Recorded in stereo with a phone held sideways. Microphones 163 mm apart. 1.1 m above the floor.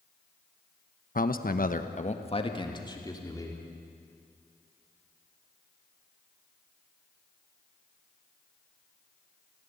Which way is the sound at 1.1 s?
55° left (ahead or behind).